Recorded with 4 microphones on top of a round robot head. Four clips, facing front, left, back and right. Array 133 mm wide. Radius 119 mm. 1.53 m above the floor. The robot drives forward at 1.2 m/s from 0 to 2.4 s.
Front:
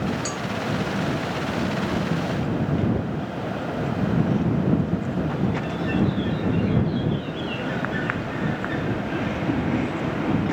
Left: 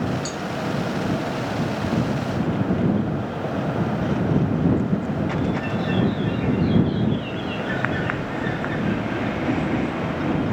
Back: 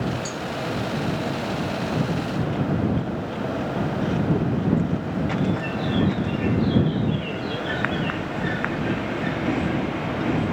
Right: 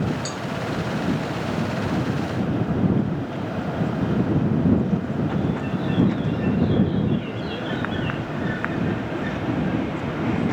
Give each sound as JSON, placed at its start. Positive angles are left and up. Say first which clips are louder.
{"t": 0.2, "sound": "a cowbell", "louder": "left 1 dB, front 1 dB", "azimuth_deg": -35}